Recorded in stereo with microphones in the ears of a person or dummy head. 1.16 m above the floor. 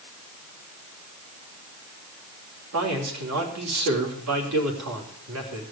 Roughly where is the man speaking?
Right.